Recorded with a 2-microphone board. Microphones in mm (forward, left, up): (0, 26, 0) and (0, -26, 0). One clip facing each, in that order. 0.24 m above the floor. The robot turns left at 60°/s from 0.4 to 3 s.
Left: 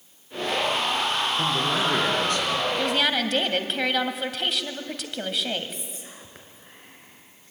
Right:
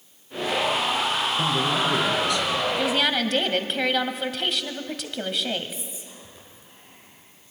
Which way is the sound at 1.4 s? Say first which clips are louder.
Right 2 dB; 170° right.